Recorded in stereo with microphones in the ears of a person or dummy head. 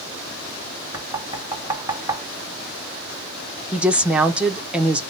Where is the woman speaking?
5° right (ahead or behind), 0.7 m.